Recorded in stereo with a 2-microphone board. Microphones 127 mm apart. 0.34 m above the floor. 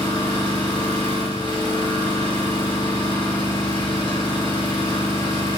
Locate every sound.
0.0 s an engine running: 40° left (ahead or behind), 1.6 m